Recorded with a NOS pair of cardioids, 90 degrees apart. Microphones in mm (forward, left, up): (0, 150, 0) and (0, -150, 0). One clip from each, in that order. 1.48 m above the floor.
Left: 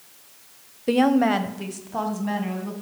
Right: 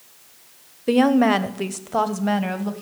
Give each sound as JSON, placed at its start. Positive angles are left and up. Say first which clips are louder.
{"t": 0.9, "sound": "a woman speaking", "louder": "right 2 dB", "azimuth_deg": 0, "distance_m": 0.6}